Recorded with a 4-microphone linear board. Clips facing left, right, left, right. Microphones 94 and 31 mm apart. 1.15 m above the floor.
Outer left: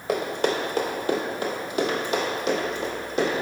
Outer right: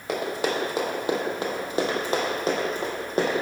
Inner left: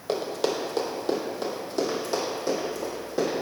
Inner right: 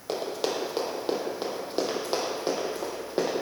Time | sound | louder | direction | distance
0.1 | running footsteps | outer left 2 dB, inner left 2 dB | centre (ahead or behind) | 1.9 m